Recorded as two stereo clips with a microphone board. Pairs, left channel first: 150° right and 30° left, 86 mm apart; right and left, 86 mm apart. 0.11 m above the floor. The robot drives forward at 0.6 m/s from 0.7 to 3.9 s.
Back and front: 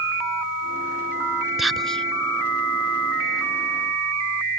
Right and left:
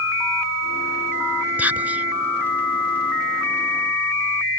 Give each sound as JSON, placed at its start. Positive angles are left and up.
{"t": 1.6, "sound": "whispering", "azimuth_deg": 115}